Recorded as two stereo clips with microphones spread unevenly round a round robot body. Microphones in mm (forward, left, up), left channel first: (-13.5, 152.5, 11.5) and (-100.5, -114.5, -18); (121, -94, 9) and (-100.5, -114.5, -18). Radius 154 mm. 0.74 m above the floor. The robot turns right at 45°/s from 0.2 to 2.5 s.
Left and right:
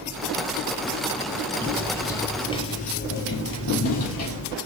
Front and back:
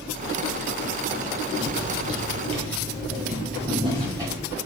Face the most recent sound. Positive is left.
turn(degrees=85)